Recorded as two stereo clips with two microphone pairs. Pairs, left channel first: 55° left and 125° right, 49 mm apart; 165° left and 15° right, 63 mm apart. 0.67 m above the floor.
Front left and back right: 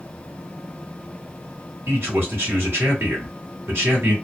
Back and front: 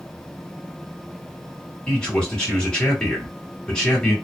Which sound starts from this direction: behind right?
A man speaking, at 1.9 s.